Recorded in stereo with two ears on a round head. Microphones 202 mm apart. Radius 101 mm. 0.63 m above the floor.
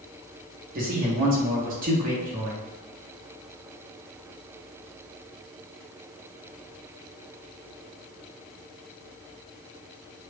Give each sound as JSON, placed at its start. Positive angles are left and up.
{"t": 0.8, "sound": "a man speaking", "side_deg": -40, "distance_m": 1.0}